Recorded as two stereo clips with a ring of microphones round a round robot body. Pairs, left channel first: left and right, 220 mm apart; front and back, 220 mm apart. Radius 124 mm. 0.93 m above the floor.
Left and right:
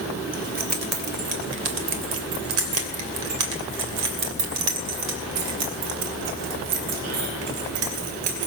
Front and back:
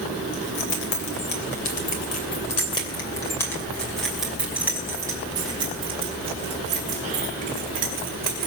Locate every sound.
0.3 s keys jangling: 40° right, 3 m; by 8.5 s 125° right, 4.5 m